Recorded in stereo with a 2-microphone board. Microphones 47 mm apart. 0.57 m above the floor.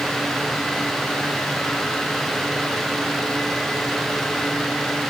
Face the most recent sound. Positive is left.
No sound to turn to.